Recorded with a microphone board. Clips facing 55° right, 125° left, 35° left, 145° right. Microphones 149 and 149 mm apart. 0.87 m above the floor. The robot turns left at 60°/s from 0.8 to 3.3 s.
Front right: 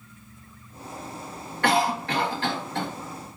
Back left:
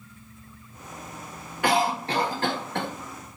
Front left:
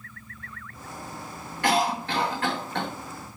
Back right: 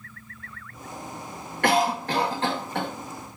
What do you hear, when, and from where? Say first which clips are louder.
1.6 s a cough: even, back right 2 dB; 155° right, 1.3 m; by 2.9 s 130° left, 1.3 m